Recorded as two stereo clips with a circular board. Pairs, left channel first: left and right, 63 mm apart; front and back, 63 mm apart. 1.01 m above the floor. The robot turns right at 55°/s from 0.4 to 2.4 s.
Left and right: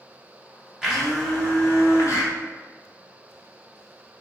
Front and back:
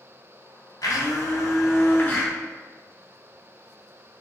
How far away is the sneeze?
I don't hear a sneeze.